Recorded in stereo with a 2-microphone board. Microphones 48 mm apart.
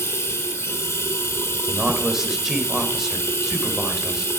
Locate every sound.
0.0 s running water: 80° left, 2 m
1.7 s a man speaking: 5° right (ahead or behind), 3 m